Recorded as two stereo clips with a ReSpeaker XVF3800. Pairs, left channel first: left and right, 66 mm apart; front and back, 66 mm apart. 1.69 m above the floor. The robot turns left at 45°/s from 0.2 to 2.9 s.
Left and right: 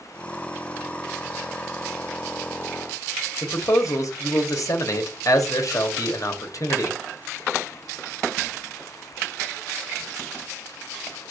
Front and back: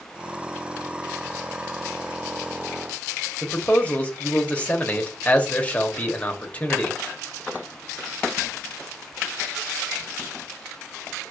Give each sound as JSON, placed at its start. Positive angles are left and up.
{"t": 3.4, "sound": "a man speaking", "azimuth_deg": 70, "distance_m": 1.0}